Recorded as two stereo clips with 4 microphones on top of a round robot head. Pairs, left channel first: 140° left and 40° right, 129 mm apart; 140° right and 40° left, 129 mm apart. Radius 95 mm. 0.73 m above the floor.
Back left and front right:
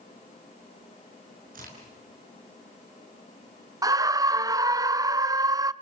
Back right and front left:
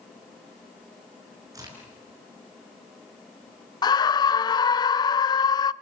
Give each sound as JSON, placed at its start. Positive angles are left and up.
{"t": 1.5, "sound": "a crack", "azimuth_deg": -30, "distance_m": 6.0}
{"t": 3.8, "sound": "a scream", "azimuth_deg": -95, "distance_m": 0.6}